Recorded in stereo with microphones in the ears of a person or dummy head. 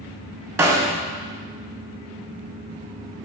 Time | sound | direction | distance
0.6 | a snare drum | 15° right (ahead or behind) | 0.7 m